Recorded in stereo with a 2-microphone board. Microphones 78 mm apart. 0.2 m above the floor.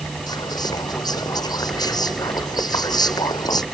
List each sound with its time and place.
0.3 s whispering: 55° left (ahead or behind)